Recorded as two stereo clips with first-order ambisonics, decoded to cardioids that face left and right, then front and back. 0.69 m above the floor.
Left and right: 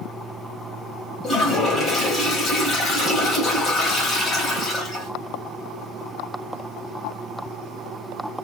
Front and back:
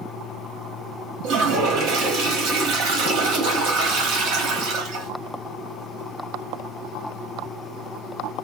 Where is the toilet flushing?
155° left, 2.5 m.